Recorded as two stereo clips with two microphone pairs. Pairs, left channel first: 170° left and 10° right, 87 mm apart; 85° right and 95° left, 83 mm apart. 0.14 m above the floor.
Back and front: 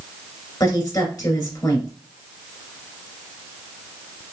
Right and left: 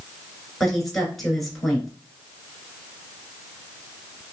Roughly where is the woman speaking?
Behind.